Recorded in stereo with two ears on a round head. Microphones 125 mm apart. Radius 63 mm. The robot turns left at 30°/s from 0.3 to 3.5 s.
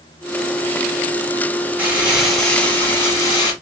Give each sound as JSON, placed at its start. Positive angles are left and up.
{"t": 1.8, "sound": "crumpling", "azimuth_deg": -165, "distance_m": 1.5}